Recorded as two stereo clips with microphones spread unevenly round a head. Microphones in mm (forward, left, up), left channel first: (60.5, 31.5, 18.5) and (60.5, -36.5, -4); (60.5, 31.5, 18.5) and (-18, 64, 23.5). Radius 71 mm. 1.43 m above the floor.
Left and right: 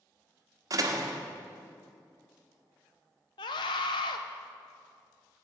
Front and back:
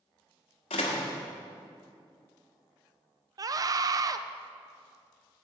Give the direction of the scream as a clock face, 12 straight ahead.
8 o'clock.